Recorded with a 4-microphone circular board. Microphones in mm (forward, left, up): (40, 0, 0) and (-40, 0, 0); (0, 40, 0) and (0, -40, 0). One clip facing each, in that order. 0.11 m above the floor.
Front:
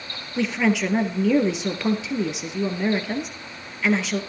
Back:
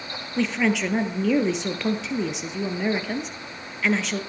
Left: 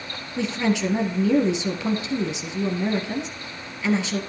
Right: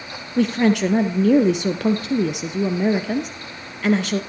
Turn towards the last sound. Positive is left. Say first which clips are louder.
# front 1 dB, right 6 dB
turn(degrees=-85)